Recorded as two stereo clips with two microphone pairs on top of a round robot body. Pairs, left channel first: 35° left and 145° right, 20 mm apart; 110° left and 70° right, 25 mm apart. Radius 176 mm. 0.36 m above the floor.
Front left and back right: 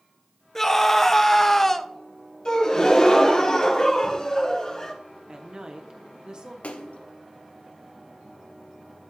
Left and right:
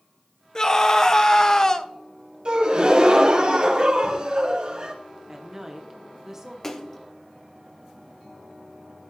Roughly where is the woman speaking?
Behind right.